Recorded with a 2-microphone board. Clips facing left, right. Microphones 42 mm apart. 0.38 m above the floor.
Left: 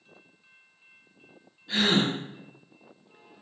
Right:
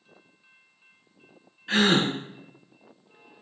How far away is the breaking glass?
No breaking glass in this recording.